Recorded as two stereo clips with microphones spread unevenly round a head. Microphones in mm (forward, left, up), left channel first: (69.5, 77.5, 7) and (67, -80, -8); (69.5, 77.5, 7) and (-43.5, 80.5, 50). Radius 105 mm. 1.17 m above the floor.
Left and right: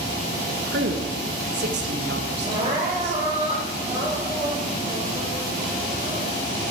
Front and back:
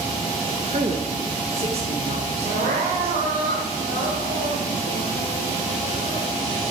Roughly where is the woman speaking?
Behind right.